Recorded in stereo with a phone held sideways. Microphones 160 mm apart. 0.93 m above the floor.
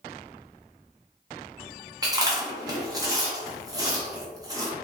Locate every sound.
2.0 s chewing: 20° right (ahead or behind), 0.7 m